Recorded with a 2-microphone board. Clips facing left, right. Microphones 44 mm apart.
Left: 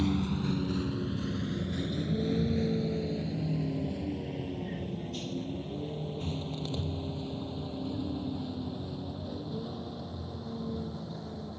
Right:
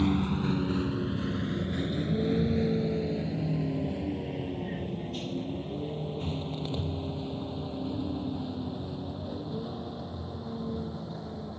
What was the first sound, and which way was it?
A vehicle, 25° right (ahead or behind).